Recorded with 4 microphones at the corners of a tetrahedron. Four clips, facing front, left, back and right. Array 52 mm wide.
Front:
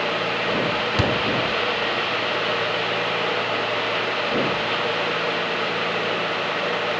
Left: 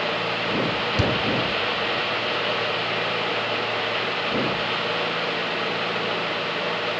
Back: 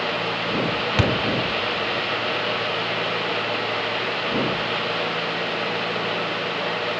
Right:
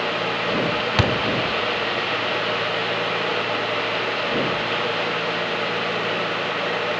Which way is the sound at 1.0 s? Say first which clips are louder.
Right 3 dB, back 2 dB; 105° right.